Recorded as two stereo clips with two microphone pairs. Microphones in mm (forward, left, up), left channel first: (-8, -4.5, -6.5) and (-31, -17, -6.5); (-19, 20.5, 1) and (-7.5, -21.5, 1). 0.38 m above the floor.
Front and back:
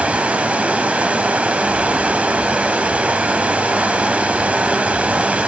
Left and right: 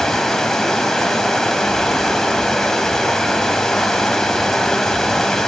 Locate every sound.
0.0 s running water: 175° right, 1.4 m